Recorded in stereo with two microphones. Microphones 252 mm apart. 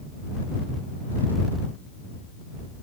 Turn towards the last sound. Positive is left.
No sound to turn to.